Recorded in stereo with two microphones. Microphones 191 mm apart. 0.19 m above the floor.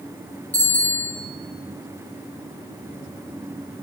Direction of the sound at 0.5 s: 10° left (ahead or behind).